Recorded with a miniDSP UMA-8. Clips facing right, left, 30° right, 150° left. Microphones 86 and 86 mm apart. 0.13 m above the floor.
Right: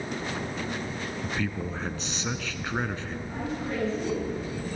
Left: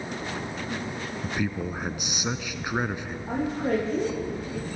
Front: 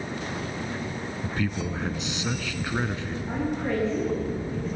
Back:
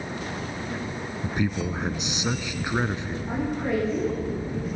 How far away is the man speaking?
About 1.0 m.